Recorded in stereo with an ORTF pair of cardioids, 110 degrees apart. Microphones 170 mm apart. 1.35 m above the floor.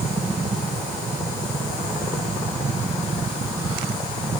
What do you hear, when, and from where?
0.0 s a fan: 30° right, 1.1 m